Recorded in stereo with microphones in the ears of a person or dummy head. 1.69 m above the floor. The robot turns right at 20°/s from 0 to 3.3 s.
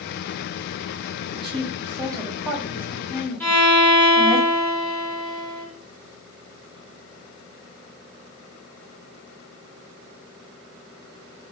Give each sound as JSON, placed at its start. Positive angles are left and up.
{"t": 1.3, "sound": "a woman speaking", "side_deg": -30, "distance_m": 0.6}
{"t": 3.4, "sound": "a violin", "side_deg": 15, "distance_m": 1.0}